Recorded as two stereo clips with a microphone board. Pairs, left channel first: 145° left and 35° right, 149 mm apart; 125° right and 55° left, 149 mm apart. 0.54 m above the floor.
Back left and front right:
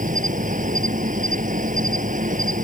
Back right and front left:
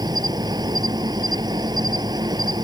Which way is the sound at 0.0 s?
5° right.